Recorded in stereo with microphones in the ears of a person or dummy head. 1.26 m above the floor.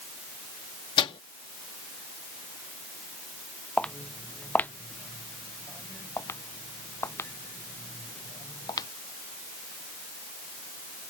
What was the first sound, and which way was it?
A microwave, 30° left (ahead or behind).